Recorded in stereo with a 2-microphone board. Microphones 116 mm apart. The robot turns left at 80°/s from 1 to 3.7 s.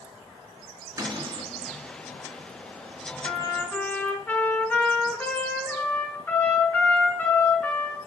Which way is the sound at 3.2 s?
50° left.